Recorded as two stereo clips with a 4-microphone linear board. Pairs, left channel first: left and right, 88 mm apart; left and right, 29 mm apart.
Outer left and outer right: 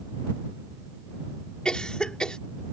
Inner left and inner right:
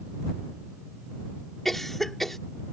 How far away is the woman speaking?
I don't hear a woman speaking.